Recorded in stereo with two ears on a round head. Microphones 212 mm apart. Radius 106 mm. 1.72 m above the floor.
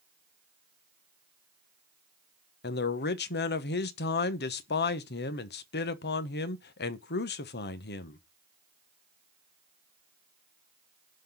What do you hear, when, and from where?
2.6 s a man speaking: 40° left (ahead or behind), 1.0 m